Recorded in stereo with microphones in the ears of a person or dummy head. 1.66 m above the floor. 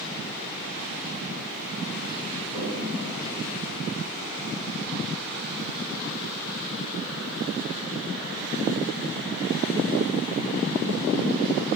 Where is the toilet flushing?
45° left (ahead or behind), 4 m.